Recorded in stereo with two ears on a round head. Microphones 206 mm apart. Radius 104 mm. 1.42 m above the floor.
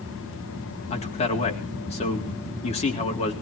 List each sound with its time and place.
0.9 s a man speaking: 30° left (ahead or behind), 3.5 m